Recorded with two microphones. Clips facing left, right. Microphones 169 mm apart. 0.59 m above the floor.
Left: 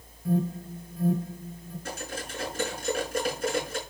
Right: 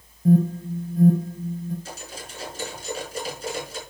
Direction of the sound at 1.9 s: 60° left (ahead or behind).